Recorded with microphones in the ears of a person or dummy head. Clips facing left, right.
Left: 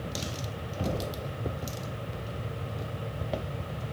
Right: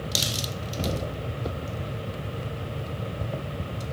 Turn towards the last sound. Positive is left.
turn(degrees=-30)  # may be behind; listen again after turning